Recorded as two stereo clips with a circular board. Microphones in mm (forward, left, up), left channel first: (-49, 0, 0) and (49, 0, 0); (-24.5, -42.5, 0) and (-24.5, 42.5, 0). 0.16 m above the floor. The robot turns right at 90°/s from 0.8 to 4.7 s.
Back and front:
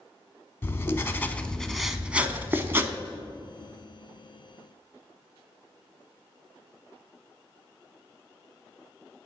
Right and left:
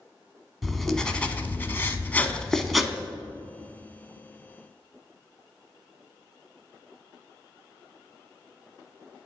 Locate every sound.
0.6 s writing: 175° right, 0.6 m; by 2.9 s 15° left, 0.6 m